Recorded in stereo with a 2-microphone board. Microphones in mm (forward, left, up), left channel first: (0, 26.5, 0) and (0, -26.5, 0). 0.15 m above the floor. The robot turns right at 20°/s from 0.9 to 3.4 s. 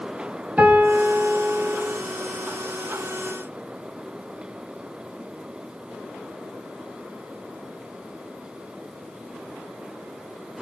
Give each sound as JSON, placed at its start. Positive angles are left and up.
{"t": 0.6, "sound": "a piano", "side_deg": -25, "distance_m": 2.0}